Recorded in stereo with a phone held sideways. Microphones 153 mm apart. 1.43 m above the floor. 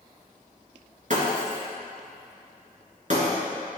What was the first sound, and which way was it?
Breaking glass, 55° right (ahead or behind).